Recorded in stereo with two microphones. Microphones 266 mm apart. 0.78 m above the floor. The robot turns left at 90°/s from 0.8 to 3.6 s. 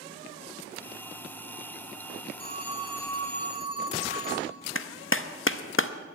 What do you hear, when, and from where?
2.4 s a phone ringing: 125° right, 3 m; by 4.5 s 125° left, 3 m
4.8 s a clap: 50° left (ahead or behind), 0.6 m